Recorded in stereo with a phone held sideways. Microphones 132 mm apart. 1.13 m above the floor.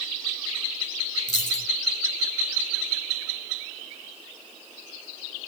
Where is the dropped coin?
65° left (ahead or behind), 4 m.